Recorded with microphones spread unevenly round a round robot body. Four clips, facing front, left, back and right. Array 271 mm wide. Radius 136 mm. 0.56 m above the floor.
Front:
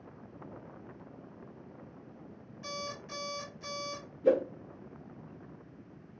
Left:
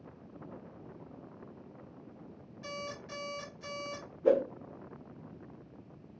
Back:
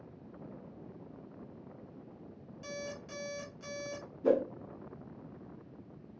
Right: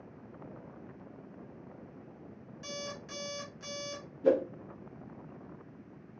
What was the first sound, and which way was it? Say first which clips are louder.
An alarm clock: left 1 dB, front 1 dB; 155° right.